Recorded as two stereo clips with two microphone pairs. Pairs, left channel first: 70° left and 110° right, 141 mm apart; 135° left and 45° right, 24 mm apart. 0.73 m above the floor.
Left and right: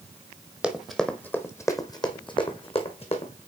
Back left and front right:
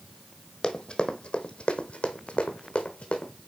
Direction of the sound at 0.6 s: 170° left.